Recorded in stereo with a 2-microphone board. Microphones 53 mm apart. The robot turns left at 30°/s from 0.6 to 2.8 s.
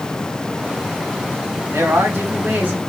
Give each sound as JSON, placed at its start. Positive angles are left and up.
{"t": 1.7, "sound": "a man speaking", "azimuth_deg": -125, "distance_m": 1.6}